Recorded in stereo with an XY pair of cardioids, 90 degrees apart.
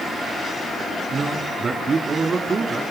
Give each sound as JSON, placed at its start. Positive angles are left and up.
{"t": 1.1, "sound": "a man speaking", "azimuth_deg": -40, "distance_m": 3.0}